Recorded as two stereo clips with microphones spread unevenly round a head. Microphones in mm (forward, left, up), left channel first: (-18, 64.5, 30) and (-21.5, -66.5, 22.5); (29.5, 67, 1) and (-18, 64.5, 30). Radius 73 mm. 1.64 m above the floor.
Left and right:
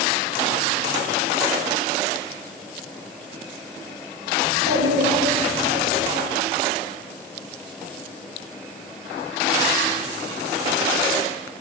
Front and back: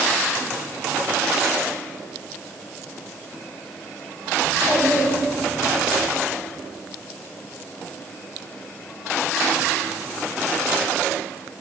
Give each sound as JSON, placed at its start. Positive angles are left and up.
{"t": 4.4, "sound": "a child speaking", "azimuth_deg": -155, "distance_m": 5.5}